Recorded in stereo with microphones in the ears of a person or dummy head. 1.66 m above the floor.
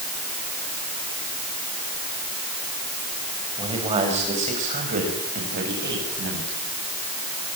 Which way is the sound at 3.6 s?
25° right (ahead or behind).